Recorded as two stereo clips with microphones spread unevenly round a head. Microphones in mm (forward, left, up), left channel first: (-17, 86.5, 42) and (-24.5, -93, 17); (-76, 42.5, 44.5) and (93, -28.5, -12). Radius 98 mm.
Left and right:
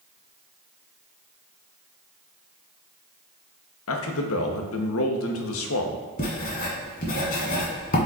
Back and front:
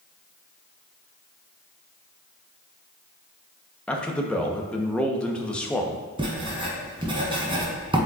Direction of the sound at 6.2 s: 50° left.